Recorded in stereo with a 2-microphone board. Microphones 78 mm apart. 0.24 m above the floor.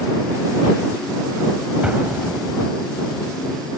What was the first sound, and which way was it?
An explosion, 15° right (ahead or behind).